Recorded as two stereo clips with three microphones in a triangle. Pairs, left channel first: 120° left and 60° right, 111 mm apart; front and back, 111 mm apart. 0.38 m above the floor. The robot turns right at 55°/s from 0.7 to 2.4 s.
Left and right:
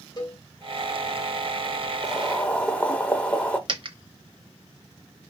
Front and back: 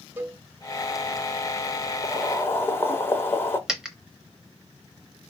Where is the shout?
No shout in this recording.